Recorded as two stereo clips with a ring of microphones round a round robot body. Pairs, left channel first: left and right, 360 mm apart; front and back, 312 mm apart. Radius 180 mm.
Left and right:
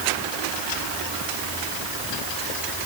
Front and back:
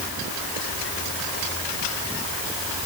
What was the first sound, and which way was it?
Only background noise.